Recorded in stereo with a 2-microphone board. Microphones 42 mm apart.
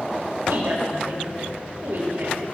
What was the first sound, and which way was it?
A woman speaking, 80° right.